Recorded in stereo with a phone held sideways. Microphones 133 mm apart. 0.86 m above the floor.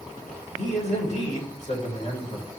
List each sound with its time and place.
0.6 s a man speaking: 55° left (ahead or behind), 3.5 m